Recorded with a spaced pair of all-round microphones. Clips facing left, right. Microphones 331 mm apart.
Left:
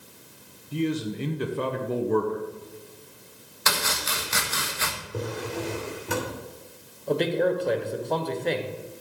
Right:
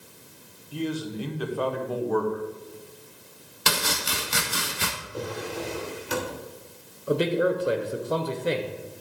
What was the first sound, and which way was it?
A man speaking, 30° left (ahead or behind).